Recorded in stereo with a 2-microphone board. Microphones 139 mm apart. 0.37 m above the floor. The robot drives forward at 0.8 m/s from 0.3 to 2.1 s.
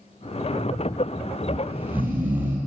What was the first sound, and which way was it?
Snoring, 20° right (ahead or behind).